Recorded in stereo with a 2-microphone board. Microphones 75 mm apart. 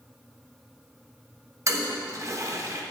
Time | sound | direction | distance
1.7 | a toilet flushing | 45° right (ahead or behind) | 1.1 m